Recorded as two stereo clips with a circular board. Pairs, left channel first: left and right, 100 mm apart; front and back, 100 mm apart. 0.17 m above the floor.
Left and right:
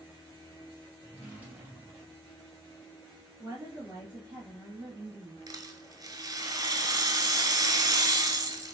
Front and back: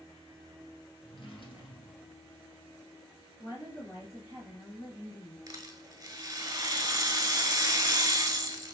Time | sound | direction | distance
1.0 | a drawer | 25° right | 2 m
3.4 | a woman speaking | 55° right | 3 m
5.5 | a rattle | 130° right | 0.8 m